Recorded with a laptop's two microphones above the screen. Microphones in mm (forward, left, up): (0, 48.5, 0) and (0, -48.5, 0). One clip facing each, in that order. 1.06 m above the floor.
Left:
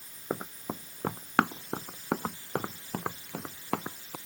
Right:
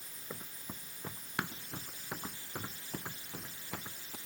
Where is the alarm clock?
No alarm clock in this recording.